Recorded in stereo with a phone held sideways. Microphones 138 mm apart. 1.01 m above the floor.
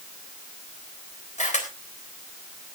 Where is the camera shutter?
60° left (ahead or behind), 3.5 m.